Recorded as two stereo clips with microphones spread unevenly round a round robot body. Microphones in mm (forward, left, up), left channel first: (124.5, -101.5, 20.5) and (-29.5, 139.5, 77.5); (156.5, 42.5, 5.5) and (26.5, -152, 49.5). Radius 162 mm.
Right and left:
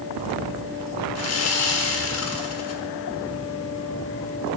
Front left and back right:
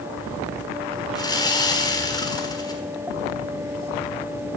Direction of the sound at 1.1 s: 20° right.